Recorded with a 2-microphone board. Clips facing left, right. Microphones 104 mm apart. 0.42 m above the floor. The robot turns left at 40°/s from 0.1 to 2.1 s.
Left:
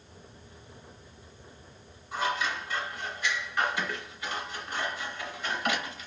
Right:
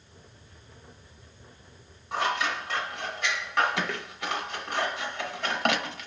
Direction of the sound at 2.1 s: 75° right (ahead or behind).